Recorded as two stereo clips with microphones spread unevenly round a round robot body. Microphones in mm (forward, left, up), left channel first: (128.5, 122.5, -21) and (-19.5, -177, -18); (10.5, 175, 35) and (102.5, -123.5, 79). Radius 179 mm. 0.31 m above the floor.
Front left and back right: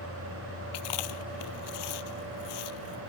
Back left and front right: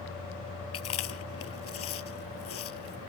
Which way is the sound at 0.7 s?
65° left.